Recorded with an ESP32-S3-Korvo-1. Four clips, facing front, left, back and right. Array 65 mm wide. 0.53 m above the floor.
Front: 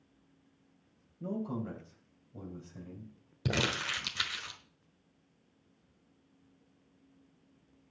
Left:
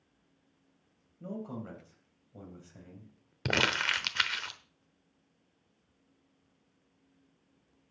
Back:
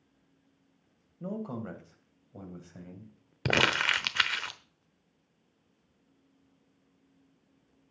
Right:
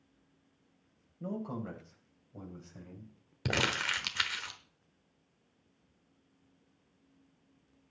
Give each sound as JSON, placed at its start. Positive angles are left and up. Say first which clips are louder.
{"t": 1.2, "sound": "a man speaking", "louder": "right 2 dB, even", "azimuth_deg": -155, "distance_m": 3.0}
{"t": 3.5, "sound": "crumpling", "louder": "left 3 dB, back 7 dB", "azimuth_deg": 170, "distance_m": 0.9}